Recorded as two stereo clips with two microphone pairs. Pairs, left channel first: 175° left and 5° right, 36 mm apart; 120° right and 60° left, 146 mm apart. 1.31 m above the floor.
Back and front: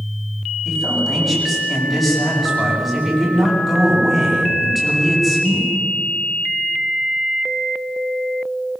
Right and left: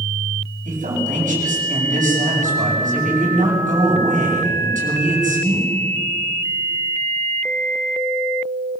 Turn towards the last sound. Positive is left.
turn(degrees=90)